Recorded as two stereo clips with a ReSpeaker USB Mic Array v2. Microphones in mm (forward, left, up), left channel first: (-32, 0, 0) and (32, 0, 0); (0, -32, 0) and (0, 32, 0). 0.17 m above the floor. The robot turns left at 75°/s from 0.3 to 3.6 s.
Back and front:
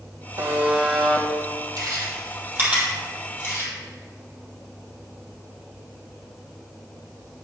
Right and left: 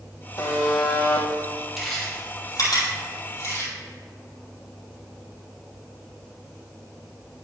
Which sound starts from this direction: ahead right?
A buzzer, at 0.4 s.